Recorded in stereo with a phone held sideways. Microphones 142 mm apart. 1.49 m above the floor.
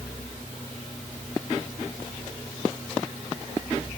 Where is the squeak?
No squeak in this recording.